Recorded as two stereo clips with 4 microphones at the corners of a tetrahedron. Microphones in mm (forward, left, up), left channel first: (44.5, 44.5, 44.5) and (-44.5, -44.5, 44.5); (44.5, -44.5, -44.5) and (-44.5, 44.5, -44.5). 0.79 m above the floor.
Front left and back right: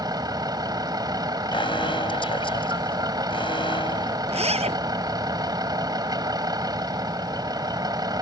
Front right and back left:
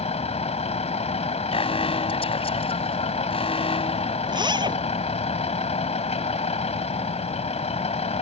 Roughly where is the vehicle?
Right.